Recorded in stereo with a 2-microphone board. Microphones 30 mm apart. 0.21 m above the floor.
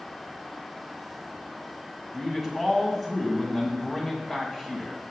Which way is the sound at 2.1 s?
5° right (ahead or behind).